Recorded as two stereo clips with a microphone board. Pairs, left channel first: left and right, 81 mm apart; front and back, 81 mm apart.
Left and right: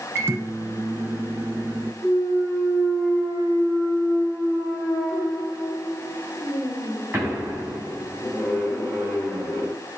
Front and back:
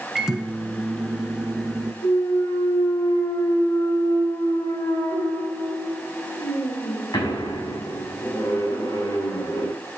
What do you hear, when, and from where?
0.1 s a microwave: 100° right, 1.4 m
2.0 s a clunk: 15° right, 4.5 m